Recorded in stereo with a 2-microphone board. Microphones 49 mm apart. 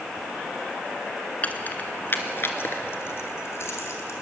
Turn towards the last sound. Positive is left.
turn(degrees=60)  # may be behind; listen again after turning